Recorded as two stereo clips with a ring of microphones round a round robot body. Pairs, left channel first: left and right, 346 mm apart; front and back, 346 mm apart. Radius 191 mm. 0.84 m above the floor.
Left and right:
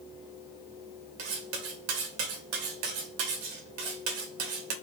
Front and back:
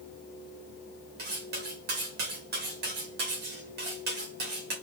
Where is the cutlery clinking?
115° right, 0.9 m.